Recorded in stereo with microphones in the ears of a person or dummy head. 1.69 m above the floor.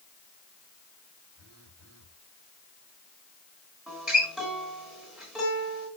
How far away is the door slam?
I don't hear a door slam.